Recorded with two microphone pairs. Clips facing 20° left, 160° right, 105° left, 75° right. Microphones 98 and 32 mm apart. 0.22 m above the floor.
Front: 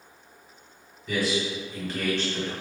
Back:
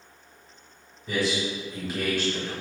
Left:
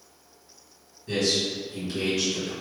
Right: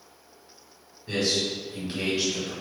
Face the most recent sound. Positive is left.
turn(degrees=-70)